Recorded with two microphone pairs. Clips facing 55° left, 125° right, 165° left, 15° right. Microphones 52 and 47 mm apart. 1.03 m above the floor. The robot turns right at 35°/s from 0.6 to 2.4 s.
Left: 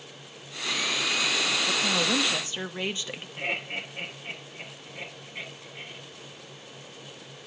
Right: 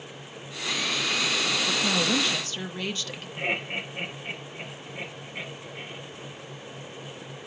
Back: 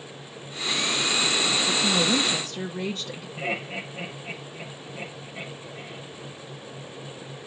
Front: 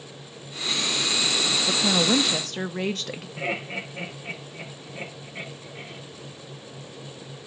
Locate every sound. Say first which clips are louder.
1.7 s a woman speaking: right 2 dB, front 3 dB; 35° right, 1.0 m; by 3.3 s 10° right, 1.0 m
3.4 s laughter: right 3 dB, even; 45° right, 3.5 m